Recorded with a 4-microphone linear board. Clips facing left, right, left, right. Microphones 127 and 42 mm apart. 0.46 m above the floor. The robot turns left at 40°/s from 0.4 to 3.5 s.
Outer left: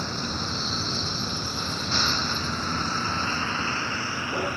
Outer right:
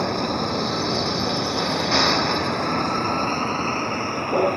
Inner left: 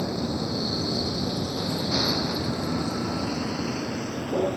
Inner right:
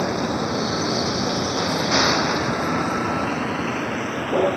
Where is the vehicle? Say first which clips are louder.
Outer right 9 dB, inner right 5 dB; 75° right (ahead or behind); by 4.6 s 55° right (ahead or behind).